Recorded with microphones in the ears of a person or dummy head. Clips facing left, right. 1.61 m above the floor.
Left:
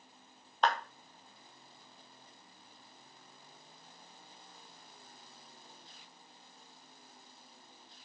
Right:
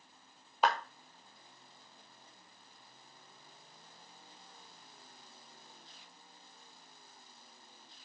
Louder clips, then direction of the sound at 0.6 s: Even; 5° right (ahead or behind).